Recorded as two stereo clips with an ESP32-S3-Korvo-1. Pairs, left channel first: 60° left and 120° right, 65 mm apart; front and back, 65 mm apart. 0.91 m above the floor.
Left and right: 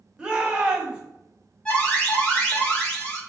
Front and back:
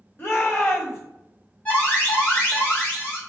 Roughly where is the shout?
Ahead right.